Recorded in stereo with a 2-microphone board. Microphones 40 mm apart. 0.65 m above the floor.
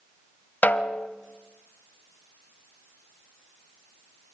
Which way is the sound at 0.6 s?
50° left (ahead or behind).